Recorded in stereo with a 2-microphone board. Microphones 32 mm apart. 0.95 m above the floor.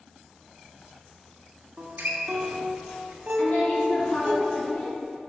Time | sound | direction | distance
1.8 | a guitar | 75° right (ahead or behind) | 0.8 m
3.4 | a woman speaking | 60° left (ahead or behind) | 1.5 m